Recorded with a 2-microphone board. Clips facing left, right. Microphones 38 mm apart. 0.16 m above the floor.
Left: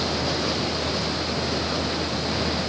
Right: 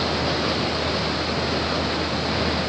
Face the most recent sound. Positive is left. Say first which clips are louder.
# right 2 dB
turn(degrees=-15)  # may be behind; listen again after turning